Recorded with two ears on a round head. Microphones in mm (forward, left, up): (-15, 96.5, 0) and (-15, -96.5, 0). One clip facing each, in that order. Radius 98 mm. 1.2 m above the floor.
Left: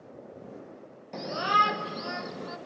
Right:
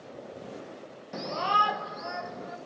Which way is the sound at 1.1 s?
5° right (ahead or behind).